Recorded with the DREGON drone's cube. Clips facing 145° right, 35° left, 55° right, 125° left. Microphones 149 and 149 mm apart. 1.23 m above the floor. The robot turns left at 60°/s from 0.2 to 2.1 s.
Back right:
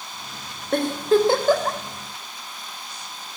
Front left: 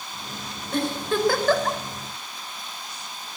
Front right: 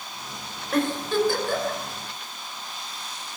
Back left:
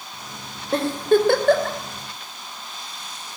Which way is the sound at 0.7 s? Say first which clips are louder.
Back right 6 dB, back left 5 dB; 175° right.